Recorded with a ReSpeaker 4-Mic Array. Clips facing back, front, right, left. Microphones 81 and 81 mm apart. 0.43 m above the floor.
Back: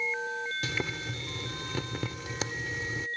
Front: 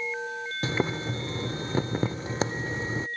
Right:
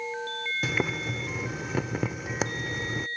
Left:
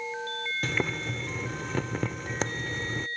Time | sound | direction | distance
0.6 | boiling | 10° right | ?